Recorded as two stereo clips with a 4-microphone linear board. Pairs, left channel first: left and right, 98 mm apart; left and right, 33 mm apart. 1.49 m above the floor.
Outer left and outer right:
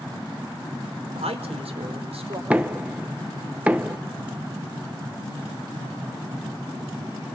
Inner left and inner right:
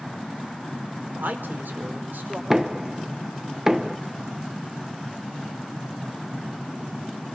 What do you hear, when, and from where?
1.1 s a man speaking: 85° right, 4.5 m
2.5 s knocking: 15° right (ahead or behind), 1.2 m